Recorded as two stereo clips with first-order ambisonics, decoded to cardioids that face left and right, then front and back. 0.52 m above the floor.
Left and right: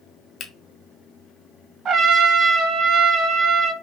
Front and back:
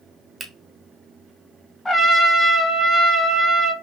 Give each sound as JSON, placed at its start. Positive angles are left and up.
{"t": 0.4, "sound": "a finger snap", "azimuth_deg": 120, "distance_m": 0.9}
{"t": 1.9, "sound": "a trumpet", "azimuth_deg": -75, "distance_m": 0.8}